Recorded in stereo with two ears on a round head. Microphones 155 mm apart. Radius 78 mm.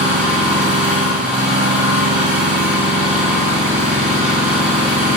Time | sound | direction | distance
0.0 | an engine running | 5° right (ahead or behind) | 5.5 m